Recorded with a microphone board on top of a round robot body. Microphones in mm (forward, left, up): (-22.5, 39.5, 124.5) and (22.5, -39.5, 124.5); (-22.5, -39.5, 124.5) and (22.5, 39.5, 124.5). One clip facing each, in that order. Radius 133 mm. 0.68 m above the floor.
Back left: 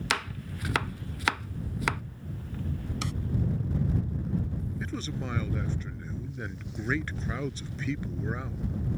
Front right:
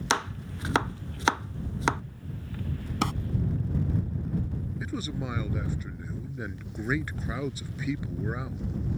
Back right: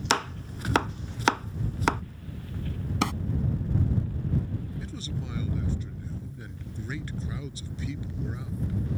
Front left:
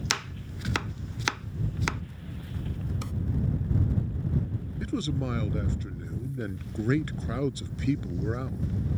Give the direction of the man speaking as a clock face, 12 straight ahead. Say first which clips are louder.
Front right 3 dB, front left 7 dB; 11 o'clock.